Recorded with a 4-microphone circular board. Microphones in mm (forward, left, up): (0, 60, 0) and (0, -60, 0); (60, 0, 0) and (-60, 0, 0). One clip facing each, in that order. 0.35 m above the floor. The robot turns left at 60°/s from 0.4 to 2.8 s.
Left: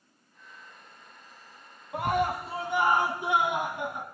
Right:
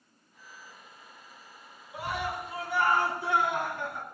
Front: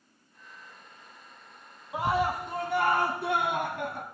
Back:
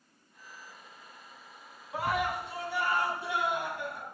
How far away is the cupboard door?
I don't hear a cupboard door.